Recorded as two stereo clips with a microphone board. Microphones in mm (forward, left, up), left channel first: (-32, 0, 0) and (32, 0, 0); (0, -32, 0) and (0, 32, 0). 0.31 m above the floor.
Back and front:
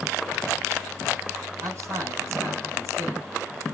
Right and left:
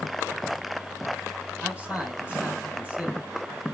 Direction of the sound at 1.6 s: 25° left.